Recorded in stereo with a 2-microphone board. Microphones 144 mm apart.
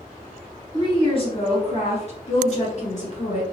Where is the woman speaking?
35° left (ahead or behind), 1.7 m; by 3.4 s 50° left (ahead or behind), 1.7 m.